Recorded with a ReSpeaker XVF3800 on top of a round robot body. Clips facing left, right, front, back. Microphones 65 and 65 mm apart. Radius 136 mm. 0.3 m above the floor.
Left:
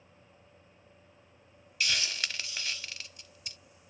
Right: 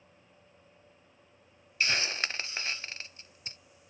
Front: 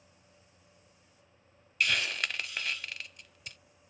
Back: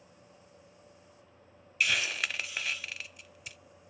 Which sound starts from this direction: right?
A hiss, at 1.8 s.